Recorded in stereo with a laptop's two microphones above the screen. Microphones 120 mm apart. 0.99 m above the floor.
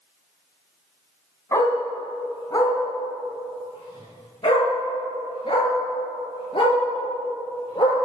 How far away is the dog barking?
About 2.5 m.